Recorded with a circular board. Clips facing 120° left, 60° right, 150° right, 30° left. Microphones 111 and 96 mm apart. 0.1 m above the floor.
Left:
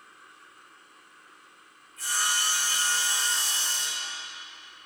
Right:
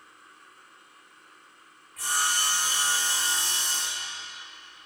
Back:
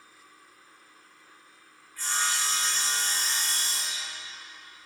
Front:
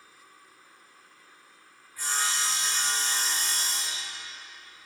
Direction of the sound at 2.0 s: 50° right.